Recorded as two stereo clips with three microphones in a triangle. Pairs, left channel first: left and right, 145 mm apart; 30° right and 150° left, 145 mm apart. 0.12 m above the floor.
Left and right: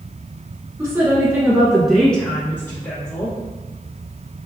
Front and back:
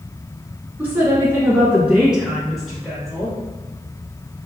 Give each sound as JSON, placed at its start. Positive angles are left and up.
{"t": 0.8, "sound": "a woman speaking", "azimuth_deg": -145, "distance_m": 1.5}